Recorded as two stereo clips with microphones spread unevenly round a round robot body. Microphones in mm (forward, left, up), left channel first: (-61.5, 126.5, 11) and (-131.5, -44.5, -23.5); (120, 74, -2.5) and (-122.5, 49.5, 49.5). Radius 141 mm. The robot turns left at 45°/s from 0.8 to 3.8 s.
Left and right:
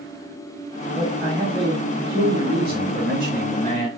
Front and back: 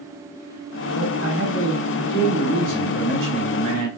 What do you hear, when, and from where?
0.9 s a man speaking: 25° right, 2.5 m; by 3.9 s 155° right, 2.5 m